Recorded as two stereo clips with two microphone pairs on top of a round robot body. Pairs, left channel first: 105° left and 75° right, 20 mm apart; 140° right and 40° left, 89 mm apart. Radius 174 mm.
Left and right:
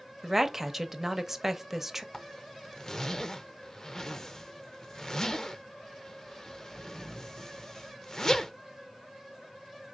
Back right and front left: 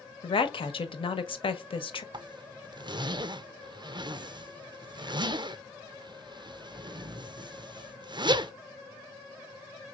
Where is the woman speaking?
140° right, 1.0 m.